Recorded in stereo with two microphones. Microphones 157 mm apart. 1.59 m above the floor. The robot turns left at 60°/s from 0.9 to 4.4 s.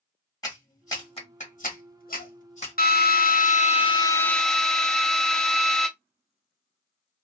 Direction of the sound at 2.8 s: 100° left.